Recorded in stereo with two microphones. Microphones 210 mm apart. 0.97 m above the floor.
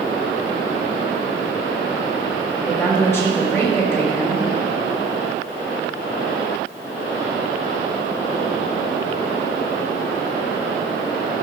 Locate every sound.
2.6 s a woman speaking: 10° left (ahead or behind), 3 m